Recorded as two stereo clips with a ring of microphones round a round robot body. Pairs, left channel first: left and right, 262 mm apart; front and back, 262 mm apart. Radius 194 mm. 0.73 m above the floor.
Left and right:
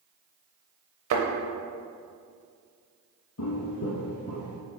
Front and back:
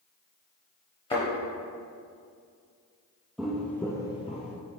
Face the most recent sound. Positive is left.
turn(degrees=25)